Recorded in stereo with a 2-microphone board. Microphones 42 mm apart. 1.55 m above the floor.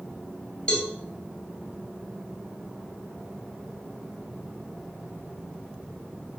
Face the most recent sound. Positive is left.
turn(degrees=20)  # may be behind; listen again after turning